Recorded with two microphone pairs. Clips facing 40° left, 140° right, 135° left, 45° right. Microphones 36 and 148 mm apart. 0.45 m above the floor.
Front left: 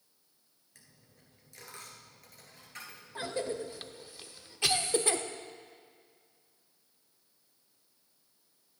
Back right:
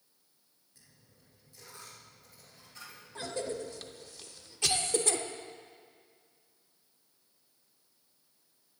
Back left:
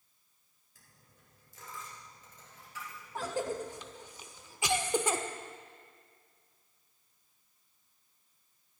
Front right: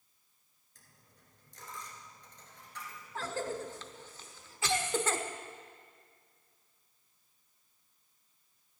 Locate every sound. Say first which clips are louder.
0.8 s a dropped coin: front left 2 dB, even; 50° left, 2.5 m
3.1 s a cough: front left 1 dB, back left 2 dB; 75° left, 0.8 m